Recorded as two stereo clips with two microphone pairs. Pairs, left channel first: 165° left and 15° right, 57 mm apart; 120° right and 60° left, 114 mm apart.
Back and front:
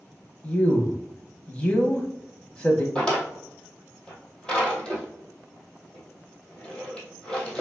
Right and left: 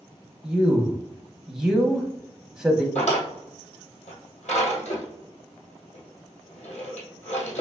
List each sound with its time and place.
0.4 s a man speaking: 135° left, 1.0 m
3.0 s a drawer: 115° right, 2 m